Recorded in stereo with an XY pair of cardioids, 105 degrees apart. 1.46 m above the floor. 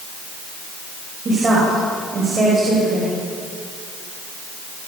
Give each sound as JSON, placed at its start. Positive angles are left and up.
{"t": 1.2, "sound": "a woman speaking", "azimuth_deg": -35, "distance_m": 9.0}